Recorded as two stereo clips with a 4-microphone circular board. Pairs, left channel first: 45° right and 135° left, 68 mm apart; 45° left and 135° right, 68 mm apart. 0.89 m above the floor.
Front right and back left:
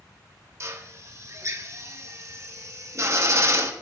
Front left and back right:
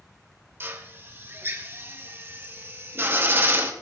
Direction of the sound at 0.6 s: 175° left.